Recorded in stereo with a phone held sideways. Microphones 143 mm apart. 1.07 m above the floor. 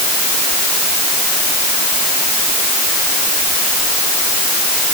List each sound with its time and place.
Only background noise.